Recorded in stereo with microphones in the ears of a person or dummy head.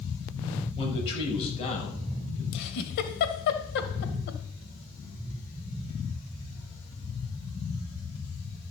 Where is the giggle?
60° left (ahead or behind), 2.0 m.